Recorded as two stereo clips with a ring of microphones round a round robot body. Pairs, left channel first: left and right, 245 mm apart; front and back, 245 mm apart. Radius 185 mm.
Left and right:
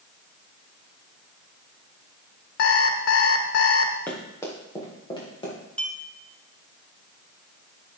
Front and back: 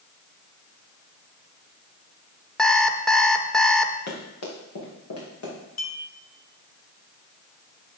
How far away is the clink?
About 2 m.